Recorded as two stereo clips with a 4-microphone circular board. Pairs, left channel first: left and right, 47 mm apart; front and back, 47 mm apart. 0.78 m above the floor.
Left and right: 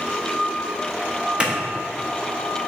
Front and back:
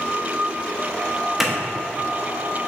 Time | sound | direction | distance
1.4 | a clap | 105° right | 0.8 m